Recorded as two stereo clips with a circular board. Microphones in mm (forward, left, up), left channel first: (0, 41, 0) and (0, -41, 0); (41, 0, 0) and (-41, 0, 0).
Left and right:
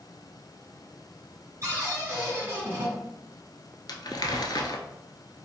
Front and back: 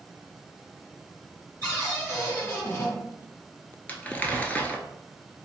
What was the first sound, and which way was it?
A cupboard door, 50° right.